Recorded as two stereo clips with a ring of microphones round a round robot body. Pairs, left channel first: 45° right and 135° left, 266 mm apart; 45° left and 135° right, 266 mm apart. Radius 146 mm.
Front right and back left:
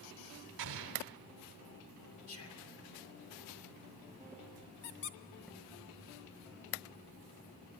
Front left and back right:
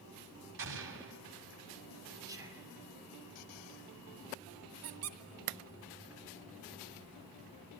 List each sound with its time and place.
0.6 s an explosion: straight behind, 1.7 m
2.3 s whispering: 60° right, 2.5 m
4.8 s a squeak: 95° right, 0.9 m